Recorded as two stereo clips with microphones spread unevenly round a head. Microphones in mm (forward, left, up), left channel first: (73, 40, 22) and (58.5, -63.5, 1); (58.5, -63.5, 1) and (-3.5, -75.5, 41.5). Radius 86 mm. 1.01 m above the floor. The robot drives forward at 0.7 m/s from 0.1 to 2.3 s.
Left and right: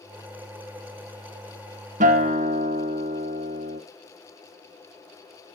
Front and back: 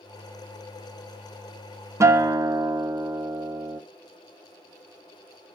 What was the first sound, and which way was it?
A guitar, 130° right.